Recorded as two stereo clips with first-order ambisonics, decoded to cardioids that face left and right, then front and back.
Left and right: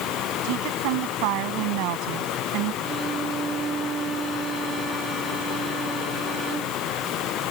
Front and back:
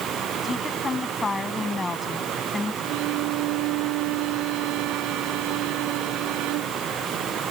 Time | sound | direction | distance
0.4 | a woman speaking | 75° right | ?
2.8 | a violin | 155° right | ?